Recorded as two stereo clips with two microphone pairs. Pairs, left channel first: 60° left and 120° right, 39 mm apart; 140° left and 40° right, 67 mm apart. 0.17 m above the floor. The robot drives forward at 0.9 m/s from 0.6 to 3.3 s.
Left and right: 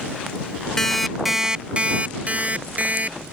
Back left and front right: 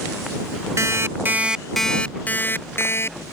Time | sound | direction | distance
0.8 | an alarm clock | 20° right | ?